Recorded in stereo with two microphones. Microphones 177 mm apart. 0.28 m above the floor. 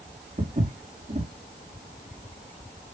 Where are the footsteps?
45° right (ahead or behind), 1.8 m.